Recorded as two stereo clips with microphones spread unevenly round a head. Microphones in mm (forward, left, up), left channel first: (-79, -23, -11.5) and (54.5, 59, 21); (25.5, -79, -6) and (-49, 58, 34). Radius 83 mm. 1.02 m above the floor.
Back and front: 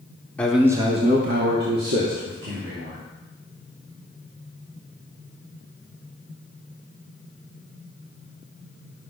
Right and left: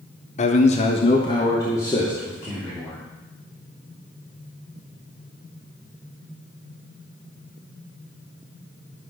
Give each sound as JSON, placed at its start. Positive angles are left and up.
{"t": 0.4, "sound": "a man speaking", "azimuth_deg": -75, "distance_m": 1.1}